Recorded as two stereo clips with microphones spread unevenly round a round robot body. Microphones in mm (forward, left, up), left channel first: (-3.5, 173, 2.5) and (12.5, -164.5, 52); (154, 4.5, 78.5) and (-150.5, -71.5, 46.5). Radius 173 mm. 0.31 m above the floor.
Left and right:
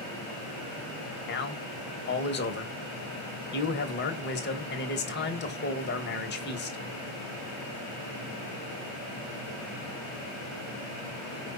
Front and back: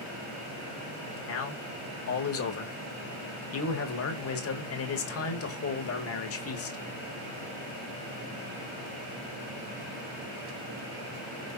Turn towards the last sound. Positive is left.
turn(degrees=55)